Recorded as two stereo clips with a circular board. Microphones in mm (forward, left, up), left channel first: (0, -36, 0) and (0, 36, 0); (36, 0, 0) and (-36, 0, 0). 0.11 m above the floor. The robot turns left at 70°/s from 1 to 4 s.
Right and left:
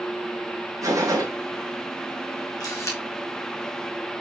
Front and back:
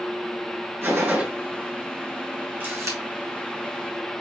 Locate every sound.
0.8 s a gunshot: 125° left, 3.5 m; by 1.3 s 105° left, 3.5 m
2.6 s a camera shutter: 115° right, 3 m; by 3.0 s 140° right, 3 m